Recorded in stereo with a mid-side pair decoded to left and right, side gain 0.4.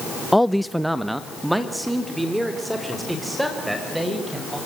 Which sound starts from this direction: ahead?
A man speaking, at 0.3 s.